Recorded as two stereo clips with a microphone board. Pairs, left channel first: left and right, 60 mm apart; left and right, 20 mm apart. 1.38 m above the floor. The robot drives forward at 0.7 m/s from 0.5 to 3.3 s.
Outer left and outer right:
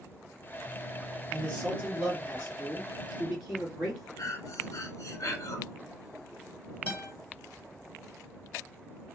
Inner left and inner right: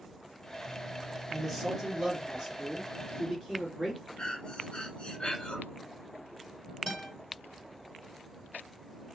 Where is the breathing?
55° left (ahead or behind), 1.8 m.